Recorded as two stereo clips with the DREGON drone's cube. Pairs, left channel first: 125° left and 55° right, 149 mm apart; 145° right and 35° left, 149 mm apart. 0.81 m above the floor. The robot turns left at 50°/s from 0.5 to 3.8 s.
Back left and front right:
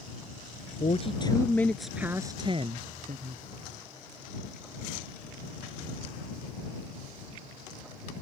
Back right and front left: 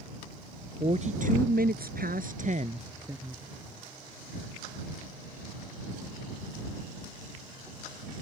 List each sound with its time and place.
0.8 s a woman speaking: 85° left; by 3.4 s 45° right